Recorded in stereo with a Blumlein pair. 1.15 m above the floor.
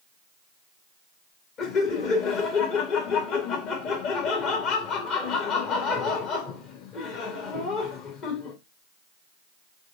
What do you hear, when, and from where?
1.6 s laughter: 35° left, 1.8 m